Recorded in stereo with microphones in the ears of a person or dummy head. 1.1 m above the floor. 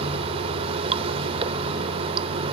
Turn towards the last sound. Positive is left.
turn(degrees=-30)  # may be behind; listen again after turning